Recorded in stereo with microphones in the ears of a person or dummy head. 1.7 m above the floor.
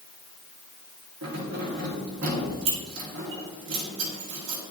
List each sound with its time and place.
1.2 s keys jangling: 60° right (ahead or behind), 1.7 m